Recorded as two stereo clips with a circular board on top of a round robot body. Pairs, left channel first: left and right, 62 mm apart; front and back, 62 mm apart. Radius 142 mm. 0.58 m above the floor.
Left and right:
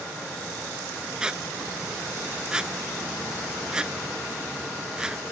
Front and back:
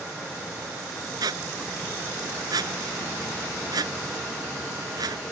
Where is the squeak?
165° right.